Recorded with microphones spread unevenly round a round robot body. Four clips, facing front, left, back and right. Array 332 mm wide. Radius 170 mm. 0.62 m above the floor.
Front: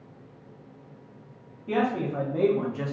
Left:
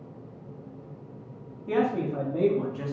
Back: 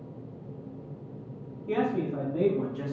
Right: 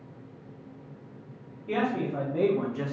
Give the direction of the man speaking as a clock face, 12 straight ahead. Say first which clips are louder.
Left 2 dB, front 2 dB; 9 o'clock.